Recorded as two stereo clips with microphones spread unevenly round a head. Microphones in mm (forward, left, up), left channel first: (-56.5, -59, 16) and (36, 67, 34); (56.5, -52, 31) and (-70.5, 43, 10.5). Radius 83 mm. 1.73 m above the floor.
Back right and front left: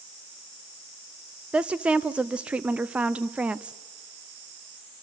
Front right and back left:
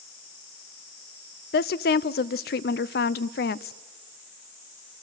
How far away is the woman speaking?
About 0.5 m.